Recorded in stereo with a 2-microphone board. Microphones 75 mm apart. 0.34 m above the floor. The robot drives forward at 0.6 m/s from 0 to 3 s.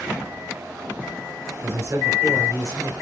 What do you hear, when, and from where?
1.6 s a man speaking: 35° right (ahead or behind), 1.0 m; by 2.9 s 30° right (ahead or behind), 1.2 m